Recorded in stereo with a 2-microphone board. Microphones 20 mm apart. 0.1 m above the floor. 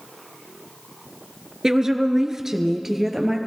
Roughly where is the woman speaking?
Right.